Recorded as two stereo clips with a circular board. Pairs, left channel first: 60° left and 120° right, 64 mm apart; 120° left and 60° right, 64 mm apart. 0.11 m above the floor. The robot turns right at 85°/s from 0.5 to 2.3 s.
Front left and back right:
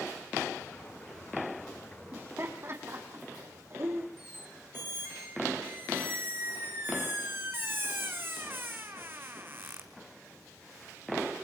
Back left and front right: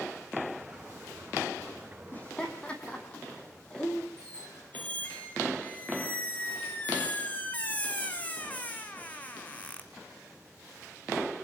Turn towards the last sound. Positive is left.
turn(degrees=-175)